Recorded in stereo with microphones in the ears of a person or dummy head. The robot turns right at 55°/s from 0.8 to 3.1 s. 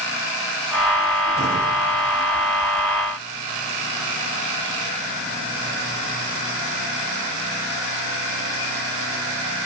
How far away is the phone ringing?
I don't hear a phone ringing.